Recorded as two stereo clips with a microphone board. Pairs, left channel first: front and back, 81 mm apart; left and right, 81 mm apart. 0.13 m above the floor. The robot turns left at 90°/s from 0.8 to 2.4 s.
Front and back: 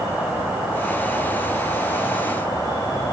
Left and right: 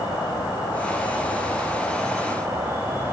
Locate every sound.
0.0 s an insect: 110° left, 1.1 m; by 3.1 s 35° right, 1.1 m